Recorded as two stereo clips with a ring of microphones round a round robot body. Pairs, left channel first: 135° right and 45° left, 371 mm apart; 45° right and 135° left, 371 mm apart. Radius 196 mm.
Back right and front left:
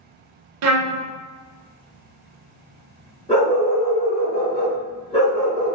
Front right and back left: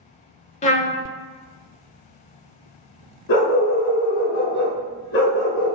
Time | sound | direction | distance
0.6 | a trumpet | 20° left | 0.6 m
3.3 | a dog barking | 60° right | 1.8 m